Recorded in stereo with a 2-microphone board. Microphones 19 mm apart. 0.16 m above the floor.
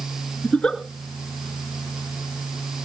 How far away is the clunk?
I don't hear a clunk.